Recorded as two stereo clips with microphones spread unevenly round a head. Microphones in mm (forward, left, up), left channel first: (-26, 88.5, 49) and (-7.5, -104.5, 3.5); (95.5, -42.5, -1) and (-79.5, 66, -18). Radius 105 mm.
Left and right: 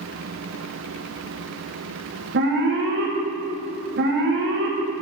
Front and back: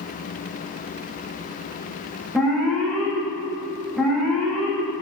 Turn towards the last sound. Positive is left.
turn(degrees=-120)